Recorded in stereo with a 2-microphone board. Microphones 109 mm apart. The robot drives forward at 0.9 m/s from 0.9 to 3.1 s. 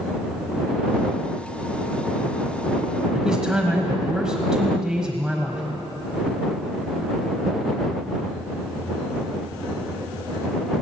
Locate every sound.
3.1 s a man speaking: 5° right (ahead or behind), 1.4 m